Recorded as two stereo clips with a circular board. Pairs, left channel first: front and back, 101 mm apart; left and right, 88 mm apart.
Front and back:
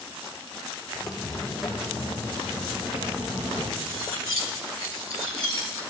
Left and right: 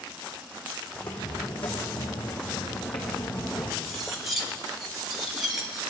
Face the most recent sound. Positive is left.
turn(degrees=-175)